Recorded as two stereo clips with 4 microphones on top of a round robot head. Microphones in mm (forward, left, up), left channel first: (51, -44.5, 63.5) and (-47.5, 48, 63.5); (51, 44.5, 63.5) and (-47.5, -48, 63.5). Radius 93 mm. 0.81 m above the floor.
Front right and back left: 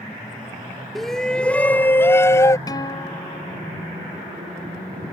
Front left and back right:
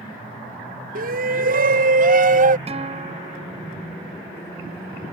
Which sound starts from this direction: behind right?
A shout, at 0.9 s.